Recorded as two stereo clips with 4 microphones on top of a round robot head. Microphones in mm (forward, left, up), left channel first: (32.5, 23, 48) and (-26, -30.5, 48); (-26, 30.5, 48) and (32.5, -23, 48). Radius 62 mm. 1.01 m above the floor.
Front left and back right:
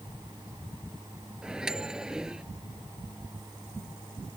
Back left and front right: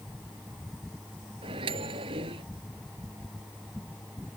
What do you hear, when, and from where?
1.4 s a microwave: 55° right